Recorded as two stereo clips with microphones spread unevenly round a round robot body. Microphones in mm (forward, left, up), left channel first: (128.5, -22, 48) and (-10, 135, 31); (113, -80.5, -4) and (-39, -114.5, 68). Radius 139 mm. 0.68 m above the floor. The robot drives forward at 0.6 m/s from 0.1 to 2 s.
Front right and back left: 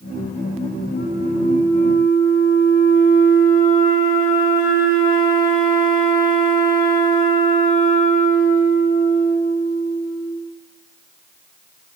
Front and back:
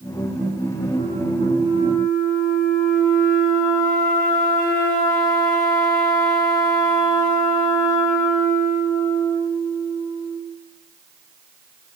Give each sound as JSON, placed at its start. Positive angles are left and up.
{"t": 0.9, "sound": "a flute", "azimuth_deg": 0, "distance_m": 8.5}